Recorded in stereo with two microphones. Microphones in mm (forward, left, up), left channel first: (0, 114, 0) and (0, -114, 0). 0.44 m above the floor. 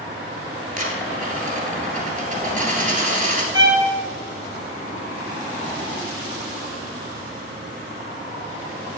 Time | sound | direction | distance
0.8 | a dropped coin | 35° right (ahead or behind) | 2 m
3.5 | a violin | 20° right (ahead or behind) | 2 m